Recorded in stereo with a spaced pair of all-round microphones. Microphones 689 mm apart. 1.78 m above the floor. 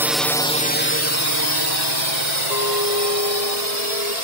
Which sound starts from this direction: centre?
A drone, at 0.0 s.